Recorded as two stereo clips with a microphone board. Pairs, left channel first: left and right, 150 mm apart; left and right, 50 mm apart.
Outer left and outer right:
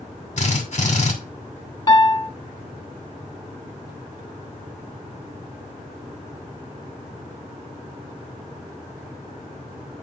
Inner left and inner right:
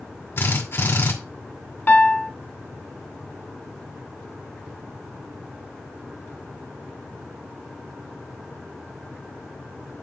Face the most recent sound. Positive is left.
turn(degrees=30)  # may be behind; listen again after turning